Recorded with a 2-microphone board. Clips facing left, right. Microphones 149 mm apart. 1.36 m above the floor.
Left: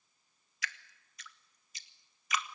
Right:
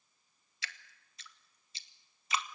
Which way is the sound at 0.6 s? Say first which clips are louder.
Left 5 dB; 30° right (ahead or behind).